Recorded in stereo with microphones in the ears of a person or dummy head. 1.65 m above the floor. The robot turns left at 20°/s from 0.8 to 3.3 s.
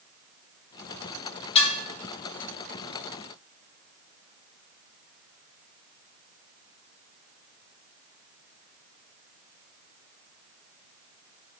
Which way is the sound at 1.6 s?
30° left (ahead or behind).